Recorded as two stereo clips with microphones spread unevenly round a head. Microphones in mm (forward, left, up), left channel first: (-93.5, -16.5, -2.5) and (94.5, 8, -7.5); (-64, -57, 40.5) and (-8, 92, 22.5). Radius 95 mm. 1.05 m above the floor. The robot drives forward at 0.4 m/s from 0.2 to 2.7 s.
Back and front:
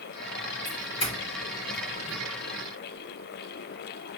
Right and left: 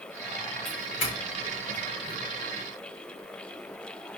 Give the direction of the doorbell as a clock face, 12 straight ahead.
4 o'clock.